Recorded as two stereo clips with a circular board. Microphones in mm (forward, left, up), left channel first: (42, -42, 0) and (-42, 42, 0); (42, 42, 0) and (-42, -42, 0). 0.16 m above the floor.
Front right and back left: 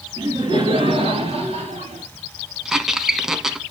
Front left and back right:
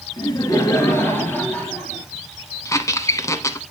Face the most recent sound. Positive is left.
turn(degrees=55)